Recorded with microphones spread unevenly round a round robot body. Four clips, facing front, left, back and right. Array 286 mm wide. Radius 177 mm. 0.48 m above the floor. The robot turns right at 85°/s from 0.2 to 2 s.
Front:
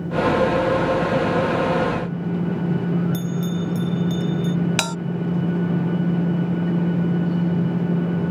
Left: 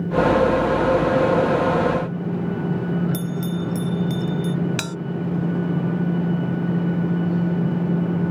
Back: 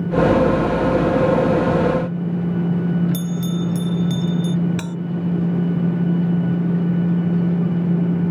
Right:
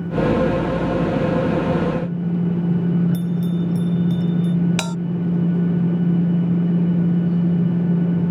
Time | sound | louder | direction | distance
3.1 | a bell | right 3 dB, back 2 dB | 150° left | ?
4.8 | a bell | right 4 dB, front 3 dB | 15° right | ?